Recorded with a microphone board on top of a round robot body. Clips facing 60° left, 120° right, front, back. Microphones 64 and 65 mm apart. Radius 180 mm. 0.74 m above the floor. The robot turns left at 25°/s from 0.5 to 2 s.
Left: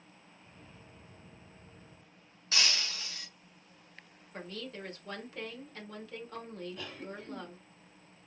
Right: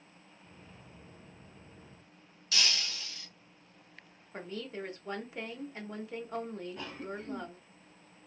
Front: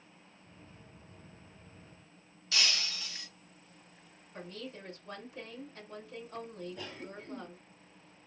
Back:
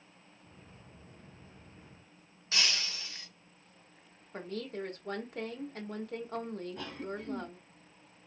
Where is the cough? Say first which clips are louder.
Right 2 dB, back 4 dB; straight behind, 1.8 m.